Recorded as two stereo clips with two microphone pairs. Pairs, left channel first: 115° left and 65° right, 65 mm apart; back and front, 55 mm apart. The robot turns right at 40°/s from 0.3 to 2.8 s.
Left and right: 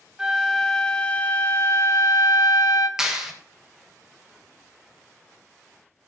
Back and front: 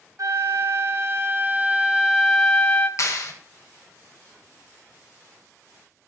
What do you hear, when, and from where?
0.2 s a flute: 10° left, 0.8 m; by 2.9 s 110° left, 0.8 m
3.0 s a clap: 150° right, 1.3 m